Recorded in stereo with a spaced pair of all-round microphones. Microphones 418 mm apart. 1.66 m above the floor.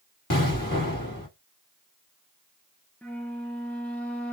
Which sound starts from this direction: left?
An explosion, at 0.3 s.